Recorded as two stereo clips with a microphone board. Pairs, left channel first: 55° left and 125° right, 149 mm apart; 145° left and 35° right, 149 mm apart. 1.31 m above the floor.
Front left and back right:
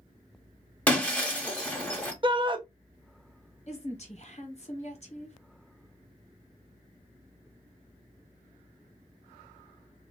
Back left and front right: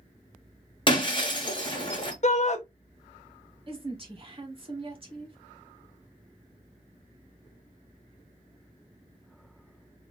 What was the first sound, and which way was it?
Breaking glass, 130° left.